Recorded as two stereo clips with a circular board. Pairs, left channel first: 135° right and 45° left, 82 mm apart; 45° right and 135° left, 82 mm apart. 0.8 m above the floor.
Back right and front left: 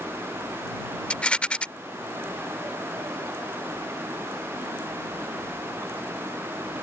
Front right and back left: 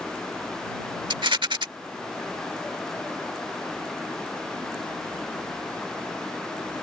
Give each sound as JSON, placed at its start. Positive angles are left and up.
{"t": 1.1, "sound": "a rattle", "azimuth_deg": 150}